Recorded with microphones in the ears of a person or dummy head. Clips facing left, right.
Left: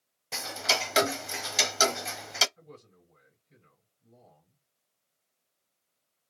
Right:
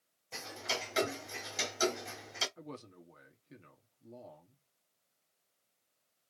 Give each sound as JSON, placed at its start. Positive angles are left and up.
{"t": 0.3, "sound": "ticking", "side_deg": 80, "distance_m": 0.6}
{"t": 2.6, "sound": "a man speaking", "side_deg": -65, "distance_m": 1.3}